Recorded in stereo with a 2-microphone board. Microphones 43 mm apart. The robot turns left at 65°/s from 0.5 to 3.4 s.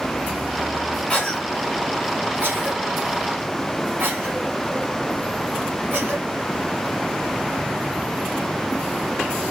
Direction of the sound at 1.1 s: 25° left (ahead or behind).